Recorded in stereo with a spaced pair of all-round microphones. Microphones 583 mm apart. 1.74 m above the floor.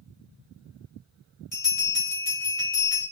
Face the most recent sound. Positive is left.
turn(degrees=65)  # may be behind; listen again after turning